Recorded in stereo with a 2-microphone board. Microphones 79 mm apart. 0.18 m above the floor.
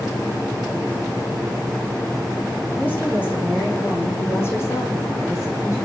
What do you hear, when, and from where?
2.8 s a woman speaking: 20° left (ahead or behind), 9 m; by 5.8 s 40° left (ahead or behind), 8.5 m